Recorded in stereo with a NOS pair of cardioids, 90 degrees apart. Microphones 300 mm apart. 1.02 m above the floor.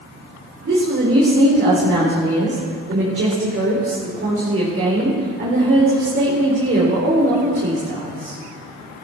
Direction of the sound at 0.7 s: 45° right.